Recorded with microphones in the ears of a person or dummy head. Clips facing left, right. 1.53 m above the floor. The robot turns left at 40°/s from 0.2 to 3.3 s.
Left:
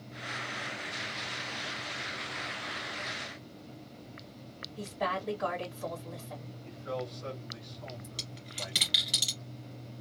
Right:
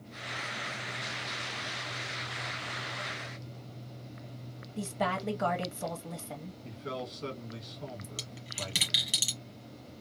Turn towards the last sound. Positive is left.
turn(degrees=-10)  # may be behind; listen again after turning